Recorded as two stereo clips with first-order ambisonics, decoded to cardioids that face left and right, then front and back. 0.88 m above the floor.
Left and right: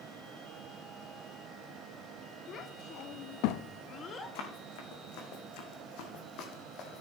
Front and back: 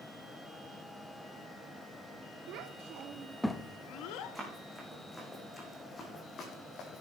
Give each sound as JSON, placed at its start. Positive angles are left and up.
{"t": 2.5, "sound": "a child speaking", "azimuth_deg": 150, "distance_m": 1.5}
{"t": 4.3, "sound": "running footsteps", "azimuth_deg": 95, "distance_m": 4.5}